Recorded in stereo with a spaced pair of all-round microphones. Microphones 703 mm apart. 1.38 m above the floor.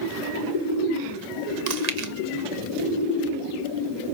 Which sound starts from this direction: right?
Chewing, at 1.7 s.